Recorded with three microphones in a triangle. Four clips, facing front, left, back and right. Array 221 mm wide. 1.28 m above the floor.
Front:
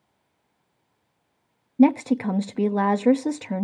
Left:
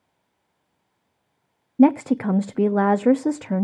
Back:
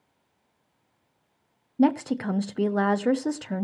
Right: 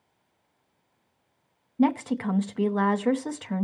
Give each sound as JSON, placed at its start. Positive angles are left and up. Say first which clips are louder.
{"t": 1.8, "sound": "a woman speaking", "louder": "left 7 dB, front 4 dB", "azimuth_deg": 80, "distance_m": 0.8}